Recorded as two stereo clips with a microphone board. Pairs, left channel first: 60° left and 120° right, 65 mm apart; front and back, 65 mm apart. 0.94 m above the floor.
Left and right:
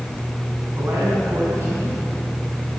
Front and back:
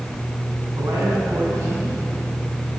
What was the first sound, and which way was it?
A man speaking, 160° right.